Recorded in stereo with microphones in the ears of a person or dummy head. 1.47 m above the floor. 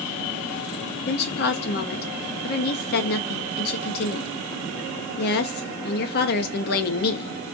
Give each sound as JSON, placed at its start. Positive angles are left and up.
{"t": 1.1, "sound": "a woman speaking", "side_deg": 50, "distance_m": 0.7}